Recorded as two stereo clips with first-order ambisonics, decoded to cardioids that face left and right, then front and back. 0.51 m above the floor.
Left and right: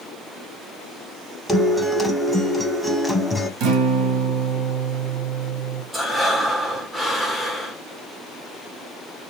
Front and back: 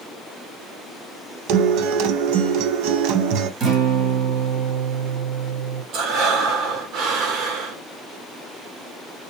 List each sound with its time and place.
1.5 s a guitar: straight behind, 0.6 m
3.6 s a guitar: 125° right, 1.2 m
5.9 s breathing: 170° right, 1.0 m